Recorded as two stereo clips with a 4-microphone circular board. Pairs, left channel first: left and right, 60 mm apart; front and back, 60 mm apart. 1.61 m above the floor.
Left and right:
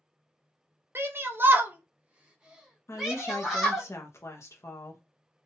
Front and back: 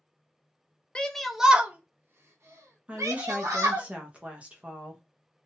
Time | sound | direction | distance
0.9 | a shout | 70° right | 0.5 m
2.9 | a woman speaking | 120° left | 0.6 m